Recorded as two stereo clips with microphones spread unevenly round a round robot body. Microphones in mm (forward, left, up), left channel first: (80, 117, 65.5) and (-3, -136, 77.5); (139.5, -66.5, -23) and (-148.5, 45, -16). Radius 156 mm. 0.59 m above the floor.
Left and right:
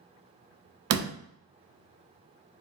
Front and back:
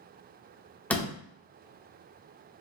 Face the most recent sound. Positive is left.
turn(degrees=-105)